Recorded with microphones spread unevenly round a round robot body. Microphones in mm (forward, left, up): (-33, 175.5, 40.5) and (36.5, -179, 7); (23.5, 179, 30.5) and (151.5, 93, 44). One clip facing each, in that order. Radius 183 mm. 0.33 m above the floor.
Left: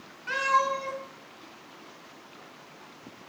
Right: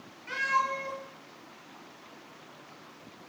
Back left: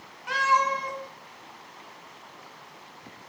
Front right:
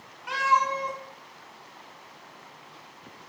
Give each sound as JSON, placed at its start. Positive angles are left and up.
{"t": 0.3, "sound": "a cat meowing", "azimuth_deg": 55, "distance_m": 1.8}